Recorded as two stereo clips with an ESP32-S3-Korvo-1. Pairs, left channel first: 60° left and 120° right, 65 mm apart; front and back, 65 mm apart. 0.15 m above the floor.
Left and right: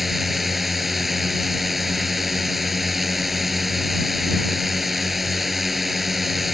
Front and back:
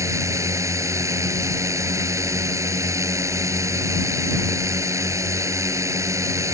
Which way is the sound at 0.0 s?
155° left.